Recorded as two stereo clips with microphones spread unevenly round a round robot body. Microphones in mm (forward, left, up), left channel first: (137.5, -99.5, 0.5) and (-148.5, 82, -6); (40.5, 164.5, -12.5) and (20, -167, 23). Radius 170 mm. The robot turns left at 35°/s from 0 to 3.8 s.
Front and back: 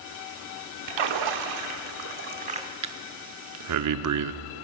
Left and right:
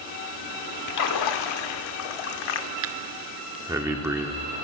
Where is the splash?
135° left, 1.0 m; by 2.7 s 70° left, 1.0 m.